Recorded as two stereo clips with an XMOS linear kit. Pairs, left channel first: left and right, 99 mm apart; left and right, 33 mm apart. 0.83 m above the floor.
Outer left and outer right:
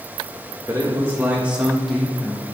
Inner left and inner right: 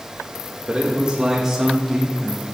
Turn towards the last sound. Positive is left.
turn(degrees=10)  # may be behind; listen again after turning